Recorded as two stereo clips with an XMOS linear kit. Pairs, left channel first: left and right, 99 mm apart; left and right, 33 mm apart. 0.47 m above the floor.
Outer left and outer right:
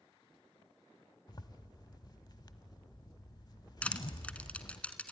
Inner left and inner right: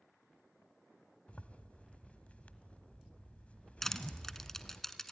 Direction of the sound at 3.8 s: 15° left (ahead or behind).